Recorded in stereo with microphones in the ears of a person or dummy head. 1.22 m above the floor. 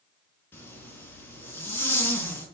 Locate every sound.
0.5 s a zipper: 10° left (ahead or behind), 4.5 m